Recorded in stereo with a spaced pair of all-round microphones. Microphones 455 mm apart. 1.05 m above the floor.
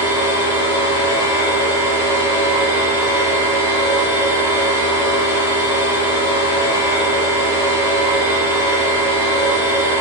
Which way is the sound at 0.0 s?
40° right (ahead or behind).